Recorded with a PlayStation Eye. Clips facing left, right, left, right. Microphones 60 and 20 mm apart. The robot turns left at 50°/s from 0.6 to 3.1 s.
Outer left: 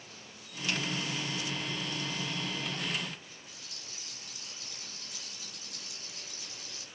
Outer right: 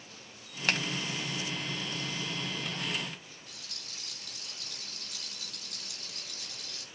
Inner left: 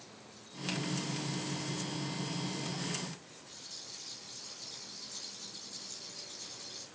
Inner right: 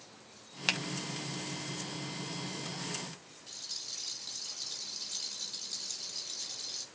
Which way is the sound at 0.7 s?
65° right (ahead or behind).